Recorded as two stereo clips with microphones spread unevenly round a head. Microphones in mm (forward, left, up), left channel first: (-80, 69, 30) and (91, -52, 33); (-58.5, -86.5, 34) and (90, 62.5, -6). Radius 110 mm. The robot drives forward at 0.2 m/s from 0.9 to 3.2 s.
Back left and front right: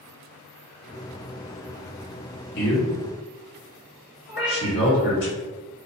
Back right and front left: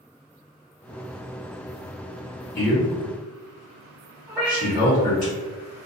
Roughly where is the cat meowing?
Behind left.